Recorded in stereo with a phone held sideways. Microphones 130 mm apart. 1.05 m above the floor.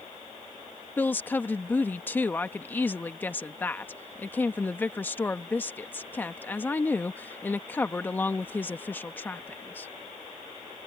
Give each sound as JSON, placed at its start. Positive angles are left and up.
{"t": 1.0, "sound": "a woman speaking", "side_deg": 15}